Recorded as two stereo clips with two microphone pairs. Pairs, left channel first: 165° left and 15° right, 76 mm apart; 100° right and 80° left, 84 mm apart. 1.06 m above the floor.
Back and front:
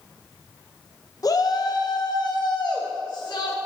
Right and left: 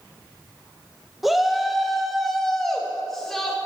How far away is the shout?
About 0.9 m.